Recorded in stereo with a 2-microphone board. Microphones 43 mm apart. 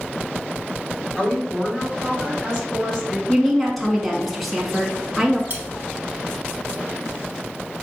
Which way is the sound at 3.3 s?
Centre (ahead or behind).